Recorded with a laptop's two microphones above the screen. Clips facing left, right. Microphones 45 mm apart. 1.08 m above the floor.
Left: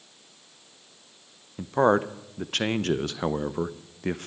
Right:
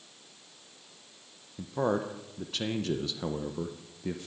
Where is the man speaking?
65° left (ahead or behind), 0.5 m.